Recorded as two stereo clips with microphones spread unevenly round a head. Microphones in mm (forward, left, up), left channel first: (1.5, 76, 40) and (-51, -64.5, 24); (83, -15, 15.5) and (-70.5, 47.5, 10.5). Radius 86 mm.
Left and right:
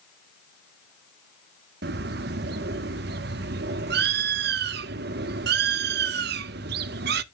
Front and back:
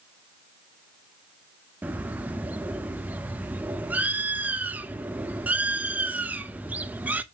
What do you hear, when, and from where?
1.8 s a bird: 120° right, 0.5 m